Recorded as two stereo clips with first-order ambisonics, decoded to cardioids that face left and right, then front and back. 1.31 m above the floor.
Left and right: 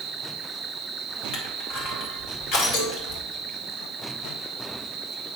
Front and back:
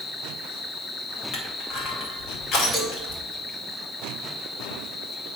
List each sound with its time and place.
0.0 s an insect: 65° right, 0.9 m
1.3 s crushing: 45° left, 2.5 m
2.7 s a cowbell: 85° left, 3 m